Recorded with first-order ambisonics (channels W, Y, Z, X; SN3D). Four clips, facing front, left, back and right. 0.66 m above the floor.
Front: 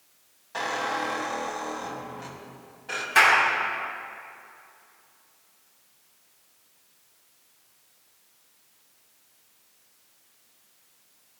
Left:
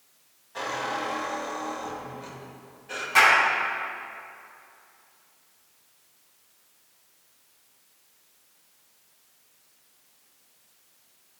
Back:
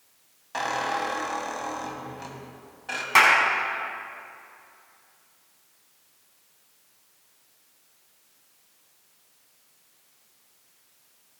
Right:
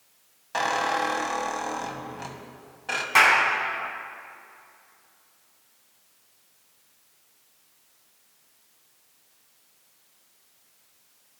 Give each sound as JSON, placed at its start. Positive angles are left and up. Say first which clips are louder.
{"t": 0.5, "sound": "a squeak", "louder": "right 5 dB, back 1 dB", "azimuth_deg": -105, "distance_m": 1.5}
{"t": 3.1, "sound": "a clap", "louder": "even, back 1 dB", "azimuth_deg": -160, "distance_m": 4.5}